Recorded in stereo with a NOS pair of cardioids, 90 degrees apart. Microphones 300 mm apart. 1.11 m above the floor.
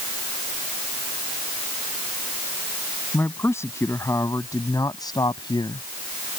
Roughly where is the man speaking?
Ahead.